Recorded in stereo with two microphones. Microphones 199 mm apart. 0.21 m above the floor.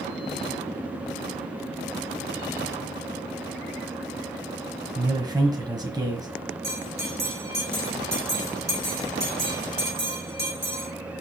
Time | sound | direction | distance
5.0 | a man speaking | 20° right (ahead or behind) | 1.5 m
6.6 | a bell | 60° right (ahead or behind) | 4 m